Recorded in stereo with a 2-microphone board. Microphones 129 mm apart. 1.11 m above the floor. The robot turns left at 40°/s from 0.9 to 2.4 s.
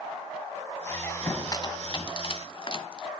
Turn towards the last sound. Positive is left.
turn(degrees=45)  # may be behind; listen again after turning